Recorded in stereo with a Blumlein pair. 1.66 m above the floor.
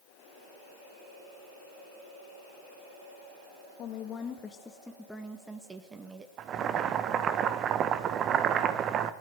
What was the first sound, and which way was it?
A woman speaking, 30° left.